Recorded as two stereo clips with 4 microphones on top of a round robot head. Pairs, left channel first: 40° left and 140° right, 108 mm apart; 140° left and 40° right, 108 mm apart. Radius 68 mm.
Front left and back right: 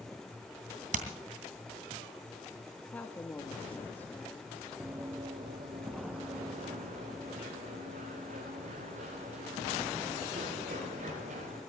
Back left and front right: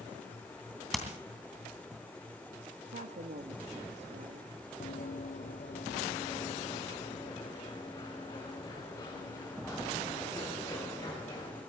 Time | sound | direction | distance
0.9 | hammering | 130° right | 2.5 m
2.9 | a woman speaking | 35° right | 1.2 m
4.8 | running footsteps | 140° left | 1.7 m